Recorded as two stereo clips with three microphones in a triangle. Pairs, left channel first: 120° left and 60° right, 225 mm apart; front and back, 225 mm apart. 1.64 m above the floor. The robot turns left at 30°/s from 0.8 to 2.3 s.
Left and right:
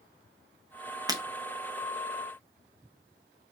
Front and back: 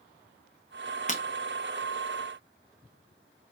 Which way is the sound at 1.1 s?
Straight ahead.